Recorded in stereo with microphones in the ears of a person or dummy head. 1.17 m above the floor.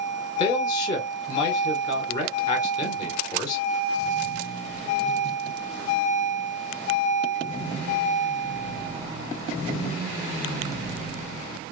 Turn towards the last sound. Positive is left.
turn(degrees=20)  # may be behind; listen again after turning